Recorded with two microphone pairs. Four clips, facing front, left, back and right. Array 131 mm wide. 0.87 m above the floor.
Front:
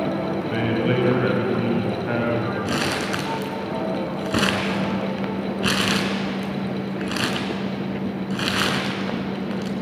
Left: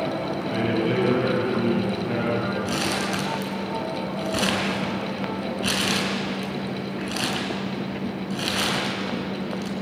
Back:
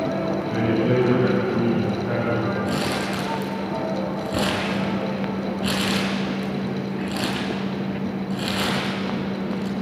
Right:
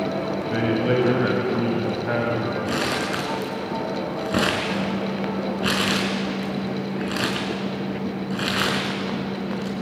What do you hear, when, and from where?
0.3 s a man speaking: 50° right, 5 m; by 2.5 s 70° right, 5 m
2.6 s crumpling: 40° right, 4.5 m